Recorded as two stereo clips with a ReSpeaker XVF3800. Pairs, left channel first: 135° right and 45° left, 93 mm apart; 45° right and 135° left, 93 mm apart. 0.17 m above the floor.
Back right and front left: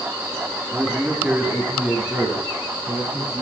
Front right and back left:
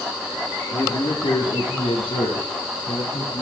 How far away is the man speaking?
About 2.5 m.